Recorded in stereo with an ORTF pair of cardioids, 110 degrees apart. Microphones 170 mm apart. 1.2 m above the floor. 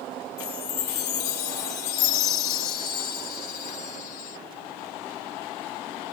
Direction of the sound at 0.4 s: 65° left.